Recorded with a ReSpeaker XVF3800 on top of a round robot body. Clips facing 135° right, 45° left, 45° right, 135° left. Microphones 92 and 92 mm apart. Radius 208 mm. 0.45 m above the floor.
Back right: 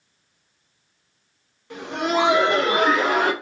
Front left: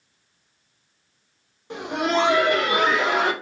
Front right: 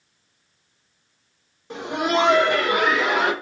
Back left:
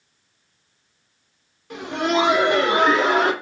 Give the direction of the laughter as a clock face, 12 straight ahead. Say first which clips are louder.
Even, back left 1 dB; 12 o'clock.